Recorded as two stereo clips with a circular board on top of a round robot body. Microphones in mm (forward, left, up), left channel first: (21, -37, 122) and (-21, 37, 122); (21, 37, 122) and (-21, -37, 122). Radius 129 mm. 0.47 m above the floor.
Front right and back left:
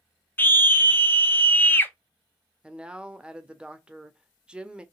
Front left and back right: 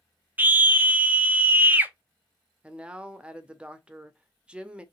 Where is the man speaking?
Straight behind, 0.9 m.